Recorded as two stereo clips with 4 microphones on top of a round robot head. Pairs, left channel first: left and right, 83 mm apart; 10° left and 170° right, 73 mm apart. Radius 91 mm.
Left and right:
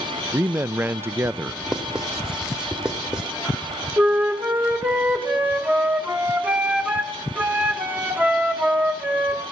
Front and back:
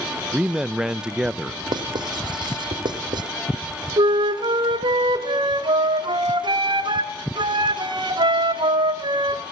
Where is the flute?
160° right, 1.9 m.